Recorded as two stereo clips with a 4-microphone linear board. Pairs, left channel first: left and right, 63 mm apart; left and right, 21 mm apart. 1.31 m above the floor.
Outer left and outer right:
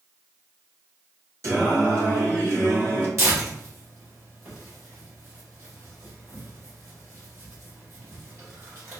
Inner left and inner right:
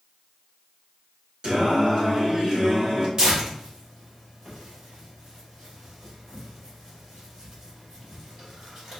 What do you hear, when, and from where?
1.4 s singing: 50° right (ahead or behind), 1.5 m
3.2 s tearing paper: 45° right (ahead or behind), 2 m